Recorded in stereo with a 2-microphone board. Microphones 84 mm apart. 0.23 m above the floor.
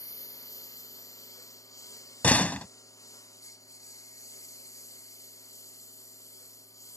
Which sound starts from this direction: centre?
A door slam, at 2.2 s.